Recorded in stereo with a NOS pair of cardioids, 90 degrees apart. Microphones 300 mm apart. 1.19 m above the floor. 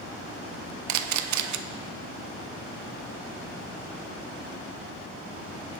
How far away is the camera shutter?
About 0.5 m.